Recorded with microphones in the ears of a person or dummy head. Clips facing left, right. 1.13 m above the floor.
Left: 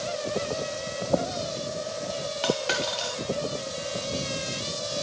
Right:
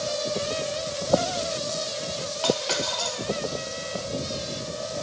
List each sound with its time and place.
2.4 s a dropped coin: 20° left (ahead or behind), 0.8 m